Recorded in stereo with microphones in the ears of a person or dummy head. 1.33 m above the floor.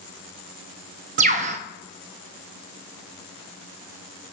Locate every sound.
1.2 s a bird: 35° right (ahead or behind), 0.5 m